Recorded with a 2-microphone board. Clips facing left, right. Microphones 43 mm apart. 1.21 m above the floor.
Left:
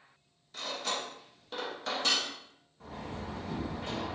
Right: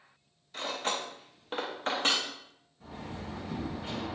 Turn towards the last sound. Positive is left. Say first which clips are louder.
# left 1 dB
turn(degrees=70)  # may be behind; listen again after turning